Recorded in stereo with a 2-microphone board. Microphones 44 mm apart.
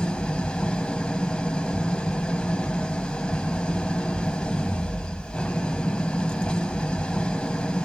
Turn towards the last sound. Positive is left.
turn(degrees=20)  # may be behind; listen again after turning